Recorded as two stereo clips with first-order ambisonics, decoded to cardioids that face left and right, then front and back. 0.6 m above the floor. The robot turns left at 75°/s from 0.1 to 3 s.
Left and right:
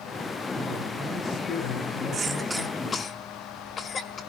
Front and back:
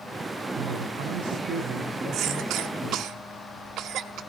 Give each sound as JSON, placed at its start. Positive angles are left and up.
{"t": 0.6, "sound": "a man speaking", "azimuth_deg": -145, "distance_m": 4.5}
{"t": 2.1, "sound": "a cough", "azimuth_deg": -145, "distance_m": 1.1}